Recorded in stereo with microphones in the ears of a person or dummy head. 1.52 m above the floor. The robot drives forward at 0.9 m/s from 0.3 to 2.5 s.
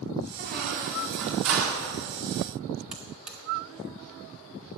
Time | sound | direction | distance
0.4 | a squeak | 50° right (ahead or behind) | 1.8 m
2.9 | a buzzer | 5° right (ahead or behind) | 1.4 m